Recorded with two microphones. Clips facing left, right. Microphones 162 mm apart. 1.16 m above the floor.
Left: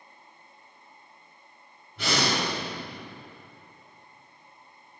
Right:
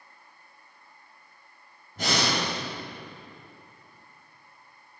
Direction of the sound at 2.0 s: 40° right (ahead or behind).